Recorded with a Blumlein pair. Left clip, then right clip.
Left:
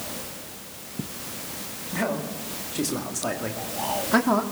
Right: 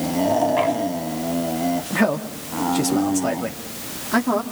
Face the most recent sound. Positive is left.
turn(degrees=5)